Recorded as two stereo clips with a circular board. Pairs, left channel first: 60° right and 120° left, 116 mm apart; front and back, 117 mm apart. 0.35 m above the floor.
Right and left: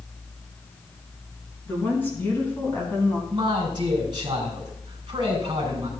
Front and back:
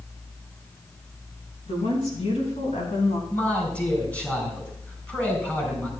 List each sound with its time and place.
1.7 s a woman speaking: 15° left, 5 m; by 3.2 s 5° left, 3 m
3.3 s a man speaking: 75° left, 3.5 m